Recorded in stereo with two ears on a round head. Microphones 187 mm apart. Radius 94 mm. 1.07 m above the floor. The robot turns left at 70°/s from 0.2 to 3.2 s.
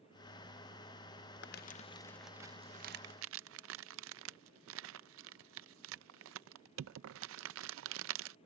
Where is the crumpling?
55° left (ahead or behind); by 8.3 s 65° right (ahead or behind).